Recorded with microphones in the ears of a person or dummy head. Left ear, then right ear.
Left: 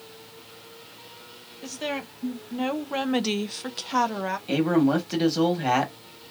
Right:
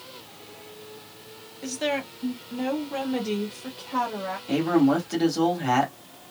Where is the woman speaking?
5° right (ahead or behind), 1.1 m; by 4.4 s 80° left, 0.9 m.